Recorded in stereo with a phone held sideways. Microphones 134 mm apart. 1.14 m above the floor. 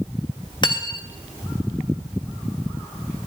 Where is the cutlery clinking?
35° left (ahead or behind), 0.6 m.